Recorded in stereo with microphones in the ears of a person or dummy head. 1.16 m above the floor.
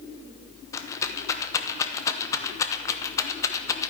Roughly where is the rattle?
Centre.